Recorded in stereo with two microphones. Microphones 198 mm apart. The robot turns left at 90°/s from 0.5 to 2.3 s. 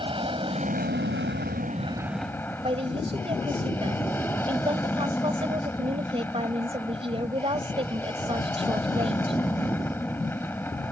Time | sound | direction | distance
0.0 | an aircraft | 30° right | ?
2.6 | a woman speaking | 30° right (ahead or behind) | ?